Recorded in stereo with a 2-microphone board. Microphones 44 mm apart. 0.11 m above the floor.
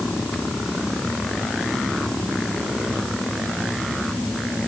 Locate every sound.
Only background noise.